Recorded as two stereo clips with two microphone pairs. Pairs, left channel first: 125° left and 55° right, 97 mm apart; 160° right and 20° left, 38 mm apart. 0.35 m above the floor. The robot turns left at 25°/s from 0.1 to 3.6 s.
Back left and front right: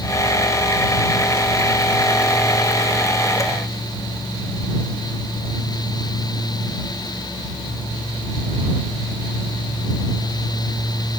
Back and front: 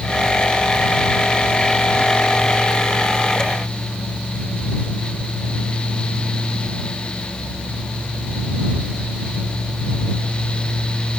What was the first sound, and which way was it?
Only background noise.